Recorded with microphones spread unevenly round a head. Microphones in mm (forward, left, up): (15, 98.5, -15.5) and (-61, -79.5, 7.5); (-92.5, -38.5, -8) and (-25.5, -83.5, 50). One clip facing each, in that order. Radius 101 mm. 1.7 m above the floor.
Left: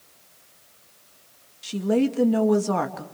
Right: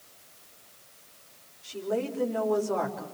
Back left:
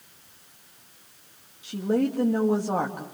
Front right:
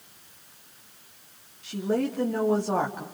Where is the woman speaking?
55° left, 2.5 m.